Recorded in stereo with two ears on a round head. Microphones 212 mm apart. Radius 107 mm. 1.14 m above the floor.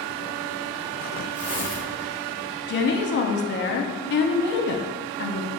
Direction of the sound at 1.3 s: 35° right (ahead or behind).